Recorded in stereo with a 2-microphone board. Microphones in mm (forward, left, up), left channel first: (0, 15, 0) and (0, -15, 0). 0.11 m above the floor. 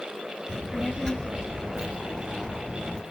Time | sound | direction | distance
0.5 | a child speaking | 25° left (ahead or behind) | 0.9 m